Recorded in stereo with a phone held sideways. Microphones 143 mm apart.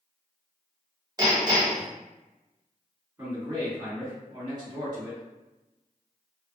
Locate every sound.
1.2 s hammering: 30° right (ahead or behind), 1.0 m
3.2 s a man speaking: 20° right (ahead or behind), 1.5 m